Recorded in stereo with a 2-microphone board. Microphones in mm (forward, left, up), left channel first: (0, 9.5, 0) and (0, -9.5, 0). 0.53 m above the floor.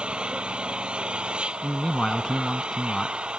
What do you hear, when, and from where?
0.0 s an engine running: 85° right
1.6 s a man speaking: 25° left (ahead or behind)